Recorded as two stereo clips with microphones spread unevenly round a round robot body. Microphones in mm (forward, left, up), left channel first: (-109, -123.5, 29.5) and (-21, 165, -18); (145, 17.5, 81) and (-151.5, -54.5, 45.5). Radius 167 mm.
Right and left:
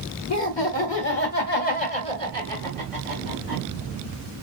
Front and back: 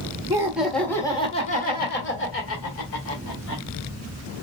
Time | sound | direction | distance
0.3 | laughter | 105° right | 1.4 m